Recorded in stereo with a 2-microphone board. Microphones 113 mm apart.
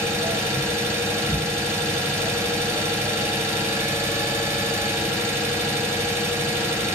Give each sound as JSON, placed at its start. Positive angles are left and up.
{"t": 0.0, "sound": "an engine running", "side_deg": -20, "distance_m": 1.3}